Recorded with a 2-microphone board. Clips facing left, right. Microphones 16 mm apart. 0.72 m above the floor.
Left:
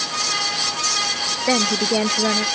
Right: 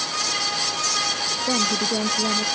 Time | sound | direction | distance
1.5 | a woman speaking | 85° left | ?